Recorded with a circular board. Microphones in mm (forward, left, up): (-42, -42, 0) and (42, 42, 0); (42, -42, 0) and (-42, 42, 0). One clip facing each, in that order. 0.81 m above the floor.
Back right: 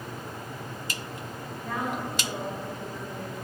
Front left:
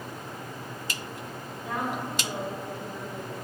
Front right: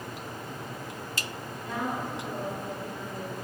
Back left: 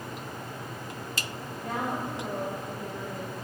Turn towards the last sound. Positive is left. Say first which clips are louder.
# even, back left 1 dB
turn(degrees=125)